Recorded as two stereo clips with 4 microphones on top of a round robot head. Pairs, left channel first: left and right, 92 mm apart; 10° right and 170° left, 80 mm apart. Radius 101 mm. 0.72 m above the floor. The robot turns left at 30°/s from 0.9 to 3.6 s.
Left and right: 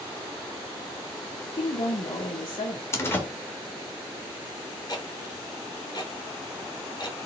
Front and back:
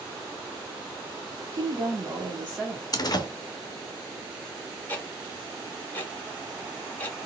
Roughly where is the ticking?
Ahead left.